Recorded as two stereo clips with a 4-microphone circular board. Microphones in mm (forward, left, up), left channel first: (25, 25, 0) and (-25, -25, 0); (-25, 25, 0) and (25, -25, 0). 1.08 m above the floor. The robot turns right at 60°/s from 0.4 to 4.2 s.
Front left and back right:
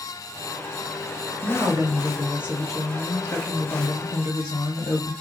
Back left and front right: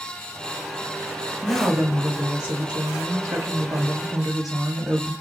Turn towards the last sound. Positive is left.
turn(degrees=45)